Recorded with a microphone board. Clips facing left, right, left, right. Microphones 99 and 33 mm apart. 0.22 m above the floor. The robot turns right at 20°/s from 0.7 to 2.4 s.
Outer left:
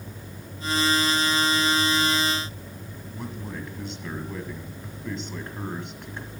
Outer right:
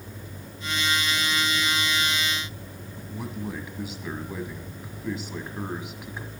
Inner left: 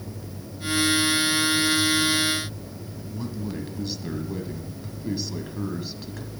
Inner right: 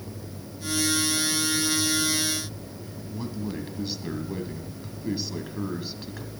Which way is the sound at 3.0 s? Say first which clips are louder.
Outer right 3 dB, even; 5° right (ahead or behind).